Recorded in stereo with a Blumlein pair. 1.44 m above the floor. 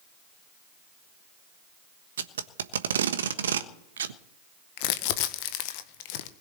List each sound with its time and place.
2.2 s tape being pulled: 65° right, 1.3 m
4.8 s crumpling: 45° left, 1.5 m